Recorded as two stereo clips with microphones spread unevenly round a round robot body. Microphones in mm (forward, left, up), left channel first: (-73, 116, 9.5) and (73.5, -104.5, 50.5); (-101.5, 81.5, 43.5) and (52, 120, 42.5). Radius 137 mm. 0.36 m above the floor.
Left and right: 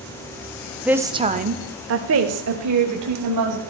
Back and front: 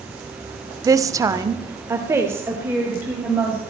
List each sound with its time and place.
0.8 s a woman speaking: 45° left, 0.9 m; by 3.6 s 70° right, 1.9 m